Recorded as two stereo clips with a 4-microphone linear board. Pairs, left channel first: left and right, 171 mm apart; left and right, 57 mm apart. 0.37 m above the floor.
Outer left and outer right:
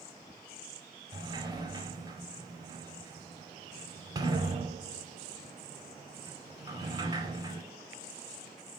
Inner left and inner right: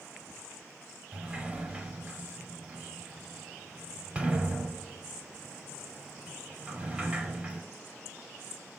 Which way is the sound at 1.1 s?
25° right (ahead or behind).